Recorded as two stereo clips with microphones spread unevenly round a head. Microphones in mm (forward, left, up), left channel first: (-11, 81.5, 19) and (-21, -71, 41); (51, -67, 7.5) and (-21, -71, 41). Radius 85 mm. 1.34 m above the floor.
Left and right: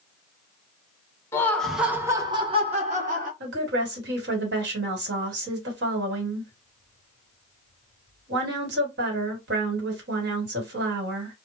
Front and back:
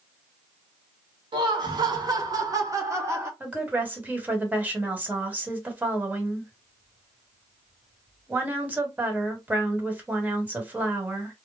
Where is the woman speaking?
105° right, 1.4 m.